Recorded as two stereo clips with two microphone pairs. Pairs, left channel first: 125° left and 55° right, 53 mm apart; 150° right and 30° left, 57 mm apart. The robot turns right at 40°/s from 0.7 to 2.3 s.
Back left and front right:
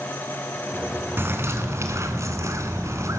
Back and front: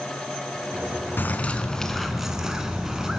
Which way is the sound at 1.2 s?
95° right.